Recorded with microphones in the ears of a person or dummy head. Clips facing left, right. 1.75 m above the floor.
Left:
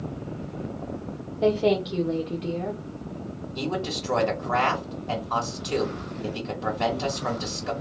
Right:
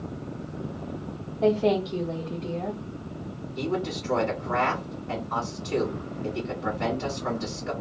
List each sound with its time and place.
1.4 s a woman speaking: 20° left (ahead or behind), 1.0 m
3.5 s a man speaking: 65° left (ahead or behind), 1.9 m